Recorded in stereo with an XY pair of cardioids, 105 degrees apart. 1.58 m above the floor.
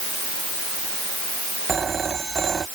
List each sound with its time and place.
1.7 s a phone ringing: 40° right